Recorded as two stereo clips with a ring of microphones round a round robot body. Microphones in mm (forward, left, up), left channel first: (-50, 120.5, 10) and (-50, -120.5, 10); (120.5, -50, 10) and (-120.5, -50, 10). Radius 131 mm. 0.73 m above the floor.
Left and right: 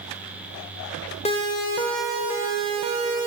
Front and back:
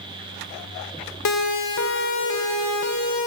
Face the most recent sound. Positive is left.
turn(degrees=-30)